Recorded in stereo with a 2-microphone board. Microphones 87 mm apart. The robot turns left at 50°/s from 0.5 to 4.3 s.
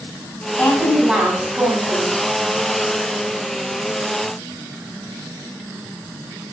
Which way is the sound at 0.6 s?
15° left.